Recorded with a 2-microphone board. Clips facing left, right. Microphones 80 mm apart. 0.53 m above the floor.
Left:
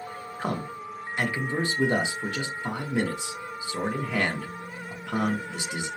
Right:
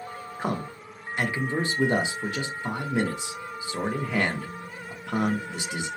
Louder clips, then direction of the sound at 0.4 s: Right 1 dB; 15° right (ahead or behind).